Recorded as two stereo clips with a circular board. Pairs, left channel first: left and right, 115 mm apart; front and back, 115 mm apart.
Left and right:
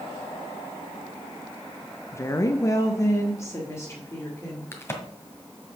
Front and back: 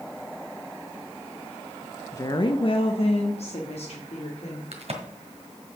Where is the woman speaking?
40° left, 0.5 m; by 4.6 s 25° left, 2.5 m.